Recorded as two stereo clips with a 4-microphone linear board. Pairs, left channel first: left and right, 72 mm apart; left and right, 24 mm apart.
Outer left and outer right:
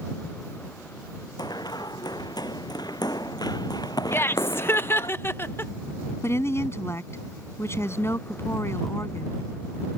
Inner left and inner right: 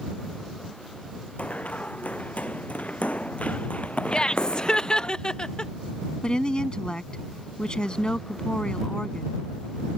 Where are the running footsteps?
75° left (ahead or behind); by 5.1 s 65° left (ahead or behind).